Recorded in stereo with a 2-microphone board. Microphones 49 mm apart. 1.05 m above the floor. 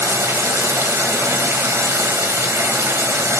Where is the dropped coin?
I don't hear a dropped coin.